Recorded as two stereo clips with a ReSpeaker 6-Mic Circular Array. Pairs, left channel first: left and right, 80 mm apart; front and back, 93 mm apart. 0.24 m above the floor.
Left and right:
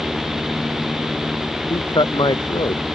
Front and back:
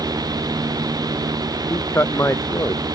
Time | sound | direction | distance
1.7 | a man speaking | 65° left | ?